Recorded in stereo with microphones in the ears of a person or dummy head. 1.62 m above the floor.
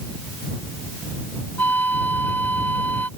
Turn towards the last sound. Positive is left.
turn(degrees=5)  # may be behind; listen again after turning